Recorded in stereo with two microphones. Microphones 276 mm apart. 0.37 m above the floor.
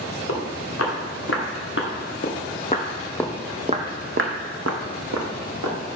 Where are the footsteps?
60° left (ahead or behind), 2.5 m; by 5.8 s 80° right, 1.8 m.